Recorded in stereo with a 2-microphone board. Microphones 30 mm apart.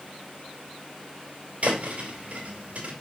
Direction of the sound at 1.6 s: 55° right (ahead or behind).